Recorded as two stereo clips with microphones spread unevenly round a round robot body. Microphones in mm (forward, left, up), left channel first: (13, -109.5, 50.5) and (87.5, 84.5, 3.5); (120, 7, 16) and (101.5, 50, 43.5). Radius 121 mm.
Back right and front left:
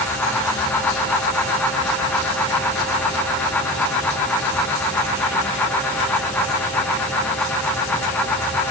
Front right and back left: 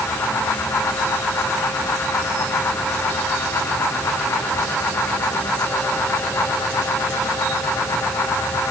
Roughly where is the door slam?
I don't hear a door slam.